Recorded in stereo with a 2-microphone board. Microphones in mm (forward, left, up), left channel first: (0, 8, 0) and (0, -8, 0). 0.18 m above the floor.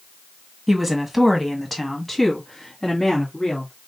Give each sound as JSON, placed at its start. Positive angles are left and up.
{"t": 0.7, "sound": "a woman speaking", "side_deg": -5, "distance_m": 1.5}